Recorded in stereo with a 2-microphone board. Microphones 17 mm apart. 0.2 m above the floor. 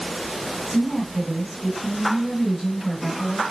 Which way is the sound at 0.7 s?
10° left (ahead or behind).